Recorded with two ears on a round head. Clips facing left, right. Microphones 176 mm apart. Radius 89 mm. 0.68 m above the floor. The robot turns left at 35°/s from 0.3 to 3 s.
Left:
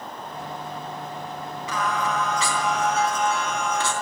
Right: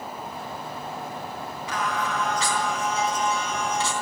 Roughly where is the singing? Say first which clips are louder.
Left 2 dB; left.